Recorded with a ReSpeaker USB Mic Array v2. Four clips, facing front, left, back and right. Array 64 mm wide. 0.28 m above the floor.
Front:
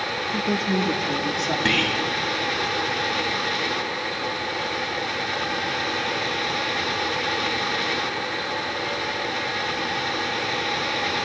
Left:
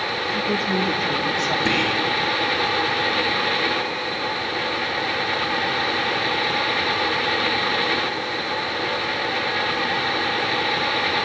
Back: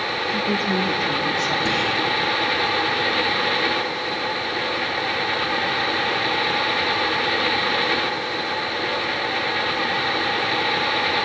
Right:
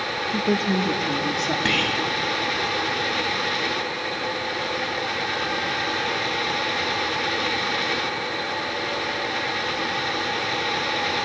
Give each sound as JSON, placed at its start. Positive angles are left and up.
{"t": 0.3, "sound": "a woman speaking", "azimuth_deg": -105, "distance_m": 4.0}
{"t": 1.6, "sound": "whispering", "azimuth_deg": -45, "distance_m": 2.5}